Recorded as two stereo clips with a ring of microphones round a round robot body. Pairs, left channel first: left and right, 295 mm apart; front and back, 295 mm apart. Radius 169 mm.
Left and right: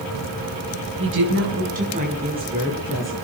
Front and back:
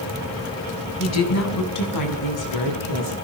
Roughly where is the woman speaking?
Ahead right.